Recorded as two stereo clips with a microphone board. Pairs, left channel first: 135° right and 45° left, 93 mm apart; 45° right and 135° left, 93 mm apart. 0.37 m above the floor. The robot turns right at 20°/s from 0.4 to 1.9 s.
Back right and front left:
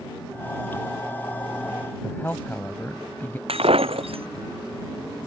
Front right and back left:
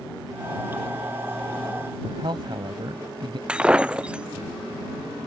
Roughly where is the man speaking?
Behind left.